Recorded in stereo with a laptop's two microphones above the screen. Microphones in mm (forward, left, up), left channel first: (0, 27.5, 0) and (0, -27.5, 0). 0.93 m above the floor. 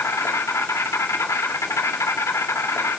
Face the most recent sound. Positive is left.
turn(degrees=70)  # may be behind; listen again after turning